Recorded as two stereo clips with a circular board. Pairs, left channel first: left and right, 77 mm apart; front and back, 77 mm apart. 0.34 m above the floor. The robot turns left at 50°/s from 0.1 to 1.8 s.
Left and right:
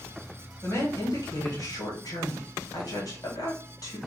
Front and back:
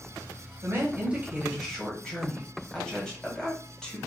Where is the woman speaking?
135° left, 1.9 m; by 4.0 s 80° left, 1.9 m.